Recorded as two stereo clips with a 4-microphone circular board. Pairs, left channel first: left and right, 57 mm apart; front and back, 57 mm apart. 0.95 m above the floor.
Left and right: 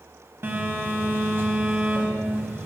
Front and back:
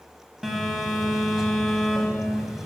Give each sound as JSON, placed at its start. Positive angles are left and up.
{"t": 0.4, "sound": "a phone buzzing", "azimuth_deg": -100, "distance_m": 1.0}